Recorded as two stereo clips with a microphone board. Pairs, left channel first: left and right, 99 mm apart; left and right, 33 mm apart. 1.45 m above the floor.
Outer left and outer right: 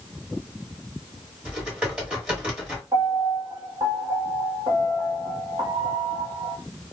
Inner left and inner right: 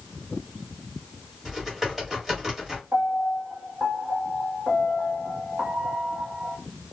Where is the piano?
55° right (ahead or behind), 1.2 m.